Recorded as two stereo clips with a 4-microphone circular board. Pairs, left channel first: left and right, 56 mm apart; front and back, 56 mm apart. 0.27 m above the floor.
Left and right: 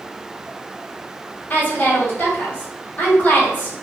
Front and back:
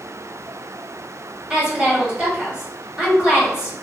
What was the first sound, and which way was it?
A woman speaking, 120° left.